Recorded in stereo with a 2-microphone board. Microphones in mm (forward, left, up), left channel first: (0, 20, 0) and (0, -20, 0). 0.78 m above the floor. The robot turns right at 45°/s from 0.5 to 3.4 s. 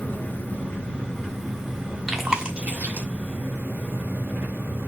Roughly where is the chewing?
Centre.